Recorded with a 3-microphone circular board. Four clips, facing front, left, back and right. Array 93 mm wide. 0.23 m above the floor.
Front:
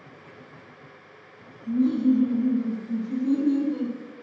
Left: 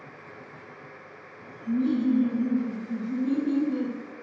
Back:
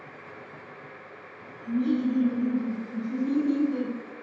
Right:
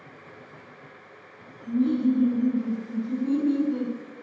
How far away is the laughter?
About 1.7 m.